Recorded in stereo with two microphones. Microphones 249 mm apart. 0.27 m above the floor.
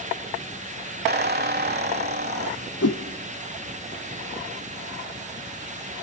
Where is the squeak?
40° right (ahead or behind), 0.8 m.